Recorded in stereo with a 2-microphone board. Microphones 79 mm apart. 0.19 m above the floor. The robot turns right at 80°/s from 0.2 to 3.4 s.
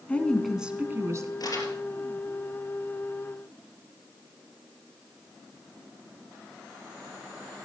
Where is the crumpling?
65° left (ahead or behind), 3.5 m; by 1.8 s 40° left (ahead or behind), 3.5 m.